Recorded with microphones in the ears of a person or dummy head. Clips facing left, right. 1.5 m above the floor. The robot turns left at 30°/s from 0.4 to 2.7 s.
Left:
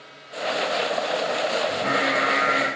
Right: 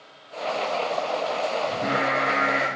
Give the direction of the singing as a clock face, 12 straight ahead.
3 o'clock.